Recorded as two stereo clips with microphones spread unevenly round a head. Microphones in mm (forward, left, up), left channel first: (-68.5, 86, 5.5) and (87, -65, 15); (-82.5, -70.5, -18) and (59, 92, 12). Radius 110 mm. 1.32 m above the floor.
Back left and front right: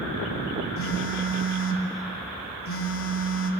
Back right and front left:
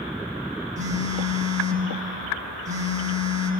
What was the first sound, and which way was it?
A phone buzzing, 110° left.